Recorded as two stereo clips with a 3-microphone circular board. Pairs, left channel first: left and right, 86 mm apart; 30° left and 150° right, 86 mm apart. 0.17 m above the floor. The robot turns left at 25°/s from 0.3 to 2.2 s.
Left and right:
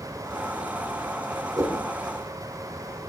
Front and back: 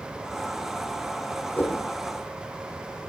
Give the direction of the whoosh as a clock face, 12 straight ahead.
1 o'clock.